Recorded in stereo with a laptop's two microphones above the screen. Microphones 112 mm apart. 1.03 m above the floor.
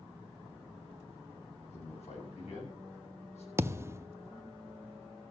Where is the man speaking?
80° left, 6.5 m; by 3.5 s 75° left (ahead or behind), 7.5 m.